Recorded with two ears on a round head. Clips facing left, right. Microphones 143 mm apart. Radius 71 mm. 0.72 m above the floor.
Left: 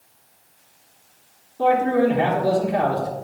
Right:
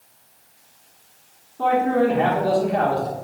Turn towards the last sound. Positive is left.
turn(degrees=10)  # may be behind; listen again after turning